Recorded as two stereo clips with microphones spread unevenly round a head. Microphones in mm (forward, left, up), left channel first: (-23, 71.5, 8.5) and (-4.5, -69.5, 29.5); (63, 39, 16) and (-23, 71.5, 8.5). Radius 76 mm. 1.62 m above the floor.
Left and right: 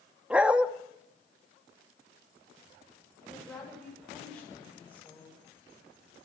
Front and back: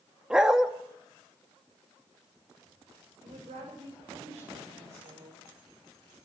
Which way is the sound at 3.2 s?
Straight behind.